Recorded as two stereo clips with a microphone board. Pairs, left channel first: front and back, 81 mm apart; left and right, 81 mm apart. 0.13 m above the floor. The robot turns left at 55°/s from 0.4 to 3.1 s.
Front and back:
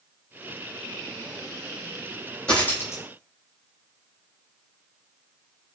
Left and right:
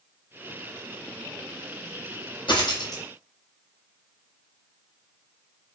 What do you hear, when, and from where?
2.5 s a dropped coin: 80° left, 0.7 m; by 3.0 s 50° left, 0.7 m